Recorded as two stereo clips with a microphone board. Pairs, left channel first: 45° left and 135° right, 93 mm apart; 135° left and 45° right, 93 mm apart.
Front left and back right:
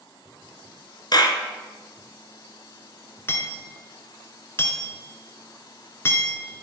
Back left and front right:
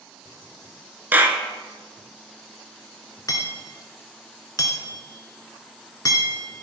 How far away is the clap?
About 1.8 m.